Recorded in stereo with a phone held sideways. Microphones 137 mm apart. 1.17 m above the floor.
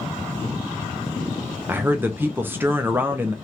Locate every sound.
1.7 s a man speaking: 15° right (ahead or behind), 0.5 m